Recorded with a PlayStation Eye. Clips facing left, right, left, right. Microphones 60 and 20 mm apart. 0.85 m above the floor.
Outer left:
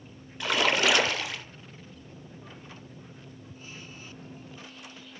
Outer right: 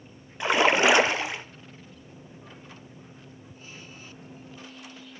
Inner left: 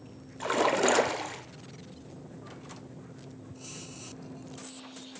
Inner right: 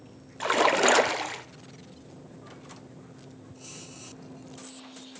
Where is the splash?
25° right (ahead or behind), 0.5 m.